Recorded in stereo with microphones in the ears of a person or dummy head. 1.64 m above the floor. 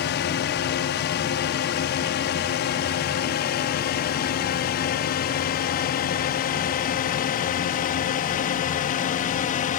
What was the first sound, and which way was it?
A drone, 55° left (ahead or behind).